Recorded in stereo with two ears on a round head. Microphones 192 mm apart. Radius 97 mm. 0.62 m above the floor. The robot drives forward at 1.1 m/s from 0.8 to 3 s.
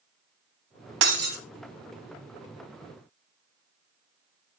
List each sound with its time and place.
1.0 s breaking glass: 60° right (ahead or behind), 1.8 m; by 1.4 s 50° right (ahead or behind), 2 m